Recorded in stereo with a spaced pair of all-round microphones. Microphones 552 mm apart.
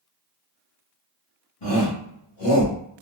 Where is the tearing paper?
No tearing paper in this recording.